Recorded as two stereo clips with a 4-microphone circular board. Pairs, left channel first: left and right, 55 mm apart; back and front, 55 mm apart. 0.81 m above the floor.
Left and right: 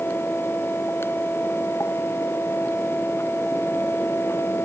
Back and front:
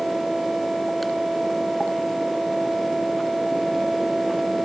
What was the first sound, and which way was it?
Only background noise.